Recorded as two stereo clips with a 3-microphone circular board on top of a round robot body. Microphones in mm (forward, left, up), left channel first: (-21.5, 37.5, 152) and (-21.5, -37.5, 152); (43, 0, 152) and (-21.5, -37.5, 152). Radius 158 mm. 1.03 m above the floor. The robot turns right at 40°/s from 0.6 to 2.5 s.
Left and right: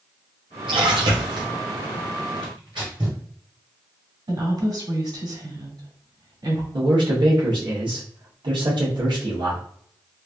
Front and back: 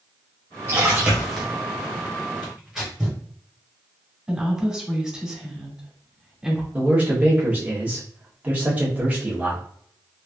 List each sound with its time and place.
0.7 s a splash: 90° right, 0.8 m; by 1.5 s 55° right, 0.8 m
2.4 s tearing paper: 70° right, 0.9 m; by 3.2 s 65° right, 0.9 m
4.3 s a woman speaking: 70° right, 2 m
6.7 s a man speaking: 80° right, 1.3 m